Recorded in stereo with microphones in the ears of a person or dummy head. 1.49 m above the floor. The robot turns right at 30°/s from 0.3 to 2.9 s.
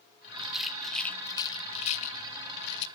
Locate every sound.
0.4 s a rattle: 10° right (ahead or behind), 0.9 m; by 2.9 s 65° left (ahead or behind), 0.9 m